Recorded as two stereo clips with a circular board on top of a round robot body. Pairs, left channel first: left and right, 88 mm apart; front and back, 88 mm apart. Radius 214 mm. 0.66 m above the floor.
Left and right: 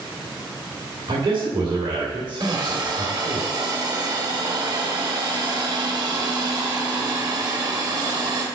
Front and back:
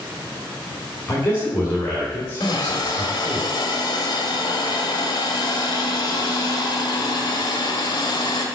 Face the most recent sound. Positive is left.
turn(degrees=-45)